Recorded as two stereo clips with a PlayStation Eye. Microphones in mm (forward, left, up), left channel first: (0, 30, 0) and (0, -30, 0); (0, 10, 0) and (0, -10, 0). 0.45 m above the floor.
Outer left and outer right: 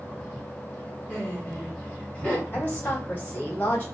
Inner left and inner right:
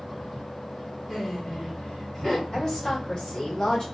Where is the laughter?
20° left (ahead or behind), 1.8 m.